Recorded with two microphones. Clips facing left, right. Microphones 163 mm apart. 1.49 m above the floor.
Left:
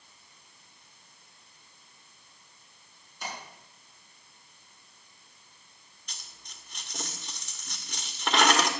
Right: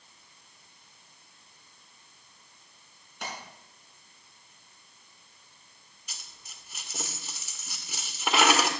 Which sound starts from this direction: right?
A splash, at 3.2 s.